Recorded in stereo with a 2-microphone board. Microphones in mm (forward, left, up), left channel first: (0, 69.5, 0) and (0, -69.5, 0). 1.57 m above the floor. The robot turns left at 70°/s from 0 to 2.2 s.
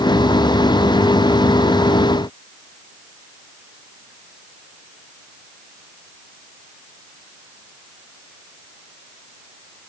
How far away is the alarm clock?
No alarm clock in this recording.